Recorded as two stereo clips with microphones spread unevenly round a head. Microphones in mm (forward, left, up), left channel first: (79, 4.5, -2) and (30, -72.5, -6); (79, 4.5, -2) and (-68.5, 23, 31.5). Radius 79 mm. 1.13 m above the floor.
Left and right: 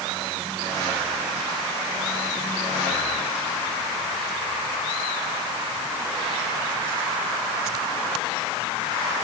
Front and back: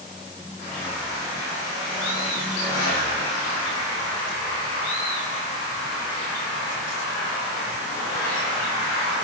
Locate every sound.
Only background noise.